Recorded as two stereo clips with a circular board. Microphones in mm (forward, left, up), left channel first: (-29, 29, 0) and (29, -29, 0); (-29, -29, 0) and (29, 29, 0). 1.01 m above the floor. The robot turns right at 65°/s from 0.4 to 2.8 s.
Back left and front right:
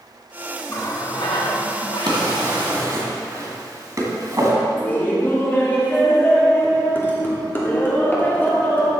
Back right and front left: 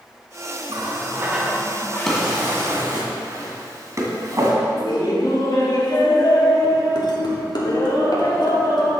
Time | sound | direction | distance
0.7 | a running tap | 75° left | 1.3 m
2.1 | a drawer | 50° right | 1.9 m
4.8 | laughter | 160° right | 2.5 m